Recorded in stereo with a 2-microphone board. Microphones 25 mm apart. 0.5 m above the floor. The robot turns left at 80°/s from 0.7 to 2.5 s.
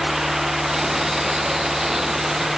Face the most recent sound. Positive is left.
No sound to turn to.